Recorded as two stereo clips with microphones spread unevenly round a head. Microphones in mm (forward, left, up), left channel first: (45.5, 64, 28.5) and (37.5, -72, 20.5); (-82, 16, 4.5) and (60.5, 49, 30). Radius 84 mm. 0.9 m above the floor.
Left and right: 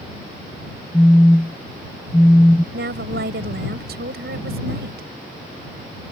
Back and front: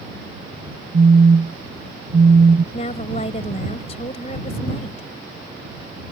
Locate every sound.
0.9 s a phone buzzing: 10° left
2.7 s a woman speaking: 110° right